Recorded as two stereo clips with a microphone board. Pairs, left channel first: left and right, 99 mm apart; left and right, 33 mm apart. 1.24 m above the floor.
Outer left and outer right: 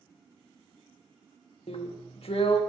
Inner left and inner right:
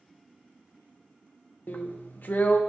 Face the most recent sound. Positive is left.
turn(degrees=70)  # may be behind; listen again after turning